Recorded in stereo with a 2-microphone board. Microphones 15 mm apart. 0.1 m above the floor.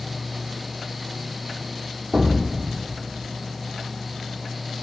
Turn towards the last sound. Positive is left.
turn(degrees=-70)  # may be behind; listen again after turning